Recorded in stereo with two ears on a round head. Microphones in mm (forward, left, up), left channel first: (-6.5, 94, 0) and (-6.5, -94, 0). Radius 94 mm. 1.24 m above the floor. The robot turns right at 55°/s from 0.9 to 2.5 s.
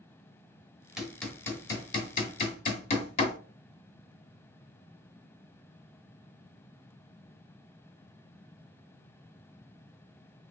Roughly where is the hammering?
Centre.